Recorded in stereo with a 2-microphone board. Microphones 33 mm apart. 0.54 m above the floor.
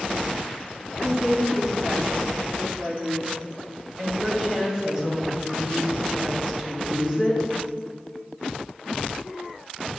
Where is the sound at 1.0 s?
20° right (ahead or behind), 1.4 m.